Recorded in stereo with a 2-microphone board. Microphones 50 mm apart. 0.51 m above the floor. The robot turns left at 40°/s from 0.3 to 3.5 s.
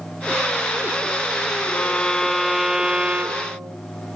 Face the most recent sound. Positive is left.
turn(degrees=-45)